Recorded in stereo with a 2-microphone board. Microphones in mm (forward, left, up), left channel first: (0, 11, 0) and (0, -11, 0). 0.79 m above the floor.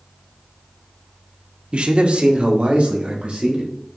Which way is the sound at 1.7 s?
55° right (ahead or behind).